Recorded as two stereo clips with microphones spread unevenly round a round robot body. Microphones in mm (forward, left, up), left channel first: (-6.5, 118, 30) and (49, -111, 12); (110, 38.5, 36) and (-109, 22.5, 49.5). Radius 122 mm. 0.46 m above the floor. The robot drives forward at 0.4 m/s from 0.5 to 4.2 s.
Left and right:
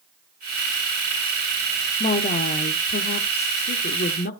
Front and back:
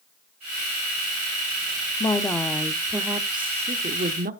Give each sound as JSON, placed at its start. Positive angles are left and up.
{"t": 2.0, "sound": "a woman speaking", "azimuth_deg": 60, "distance_m": 0.9}